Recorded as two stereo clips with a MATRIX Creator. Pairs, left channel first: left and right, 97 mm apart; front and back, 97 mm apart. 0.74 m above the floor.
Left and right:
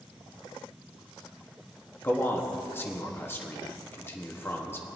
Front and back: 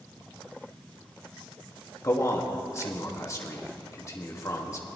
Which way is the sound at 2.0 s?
40° left.